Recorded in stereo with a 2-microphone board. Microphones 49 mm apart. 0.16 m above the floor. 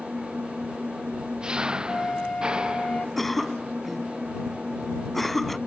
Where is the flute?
30° left (ahead or behind).